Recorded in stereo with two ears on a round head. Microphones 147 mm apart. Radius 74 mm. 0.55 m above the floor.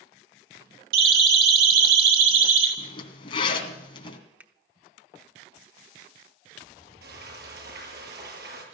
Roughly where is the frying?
Right.